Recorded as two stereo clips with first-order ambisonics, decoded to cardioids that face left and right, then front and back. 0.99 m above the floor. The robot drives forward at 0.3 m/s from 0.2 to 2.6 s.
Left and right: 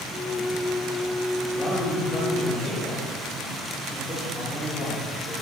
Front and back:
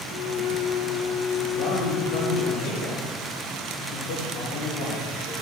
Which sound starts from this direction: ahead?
A man speaking, at 1.5 s.